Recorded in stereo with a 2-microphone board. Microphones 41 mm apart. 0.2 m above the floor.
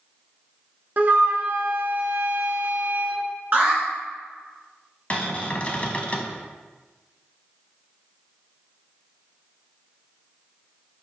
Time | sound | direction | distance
1.0 | a flute | 45° right (ahead or behind) | 0.6 m
3.5 | an alarm | 40° right (ahead or behind) | 1.7 m
5.1 | a cupboard door | 35° left (ahead or behind) | 0.6 m